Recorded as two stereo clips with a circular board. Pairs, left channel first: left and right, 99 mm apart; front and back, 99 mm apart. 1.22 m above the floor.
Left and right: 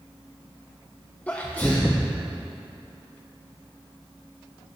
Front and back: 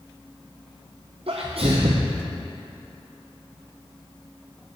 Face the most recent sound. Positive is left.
turn(degrees=165)